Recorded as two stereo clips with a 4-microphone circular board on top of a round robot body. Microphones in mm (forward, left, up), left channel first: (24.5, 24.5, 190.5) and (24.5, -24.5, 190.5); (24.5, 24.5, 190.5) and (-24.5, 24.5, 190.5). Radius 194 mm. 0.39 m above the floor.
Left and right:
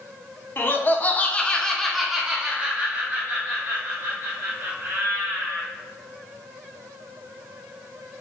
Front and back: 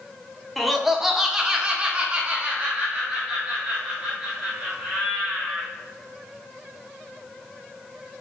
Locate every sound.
0.6 s laughter: 90° left, 1.1 m; by 5.7 s 120° right, 2 m